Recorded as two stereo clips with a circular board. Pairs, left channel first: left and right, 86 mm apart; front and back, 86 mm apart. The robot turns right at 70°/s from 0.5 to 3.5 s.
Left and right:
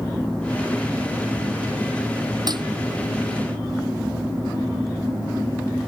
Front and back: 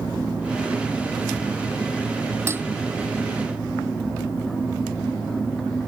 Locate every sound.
2.5 s dishes clattering: 125° right; by 2.7 s 110° right